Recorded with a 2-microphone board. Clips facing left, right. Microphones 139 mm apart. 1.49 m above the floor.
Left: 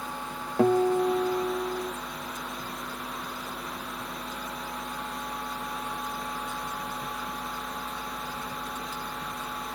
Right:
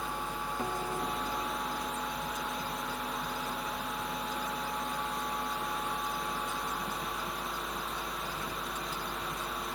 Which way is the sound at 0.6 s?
90° left.